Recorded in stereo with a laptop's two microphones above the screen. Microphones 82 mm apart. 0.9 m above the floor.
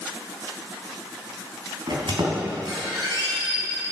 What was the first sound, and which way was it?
A squeak, 65° right (ahead or behind).